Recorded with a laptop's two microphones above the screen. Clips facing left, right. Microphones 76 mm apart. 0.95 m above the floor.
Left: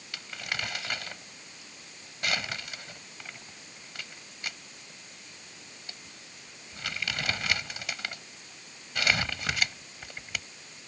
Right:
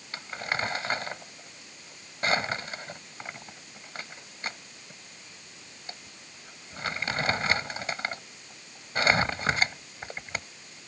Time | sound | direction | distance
0.1 | crumpling | 35° right (ahead or behind) | ?